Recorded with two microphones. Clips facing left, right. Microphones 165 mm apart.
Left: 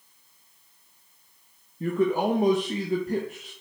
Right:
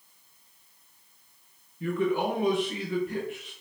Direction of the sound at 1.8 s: 40° left (ahead or behind).